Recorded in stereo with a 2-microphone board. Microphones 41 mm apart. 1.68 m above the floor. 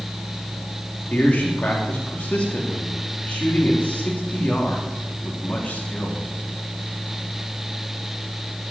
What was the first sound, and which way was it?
A man speaking, 35° left (ahead or behind).